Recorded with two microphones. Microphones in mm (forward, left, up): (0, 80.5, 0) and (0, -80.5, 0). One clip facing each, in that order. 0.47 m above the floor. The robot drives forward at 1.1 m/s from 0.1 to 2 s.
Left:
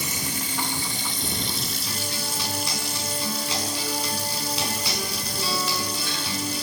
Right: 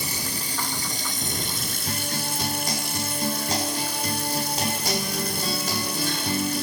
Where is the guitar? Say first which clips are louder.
Right 2 dB; 45° right (ahead or behind), 5 m.